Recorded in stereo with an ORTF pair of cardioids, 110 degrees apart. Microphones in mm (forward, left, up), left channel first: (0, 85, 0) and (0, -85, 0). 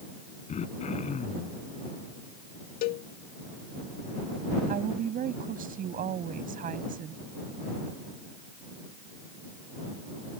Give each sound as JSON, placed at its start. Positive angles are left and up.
{"t": 0.5, "sound": "throat clearing", "azimuth_deg": 45}
{"t": 2.8, "sound": "a cowbell", "azimuth_deg": 65}
{"t": 4.7, "sound": "a woman speaking", "azimuth_deg": -55}